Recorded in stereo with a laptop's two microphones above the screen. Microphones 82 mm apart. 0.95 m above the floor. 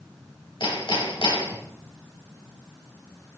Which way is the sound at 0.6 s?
85° left.